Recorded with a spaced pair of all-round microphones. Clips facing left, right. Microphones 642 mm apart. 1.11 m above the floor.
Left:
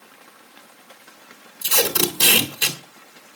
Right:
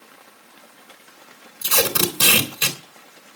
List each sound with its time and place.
1.6 s tape being pulled: 35° right (ahead or behind), 3.5 m